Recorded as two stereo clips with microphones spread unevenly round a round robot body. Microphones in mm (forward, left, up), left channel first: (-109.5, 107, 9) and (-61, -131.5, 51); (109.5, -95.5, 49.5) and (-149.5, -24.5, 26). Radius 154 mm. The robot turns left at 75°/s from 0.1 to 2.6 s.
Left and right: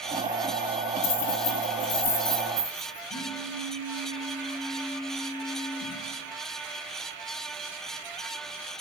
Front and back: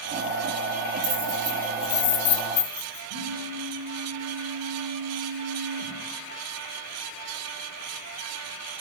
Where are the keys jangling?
120° left, 3.5 m; by 3.0 s straight ahead, 3.5 m.